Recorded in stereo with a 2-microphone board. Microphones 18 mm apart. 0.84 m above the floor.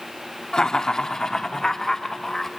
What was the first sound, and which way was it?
Laughter, 60° left (ahead or behind).